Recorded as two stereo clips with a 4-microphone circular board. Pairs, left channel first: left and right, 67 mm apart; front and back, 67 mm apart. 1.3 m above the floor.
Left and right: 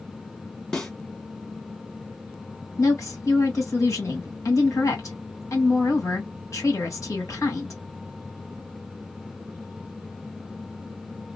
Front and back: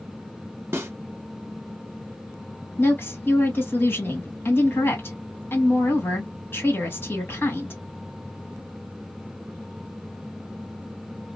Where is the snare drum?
160° left, 1.0 m.